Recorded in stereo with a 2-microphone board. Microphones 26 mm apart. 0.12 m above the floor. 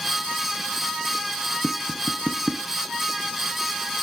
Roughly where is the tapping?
Centre.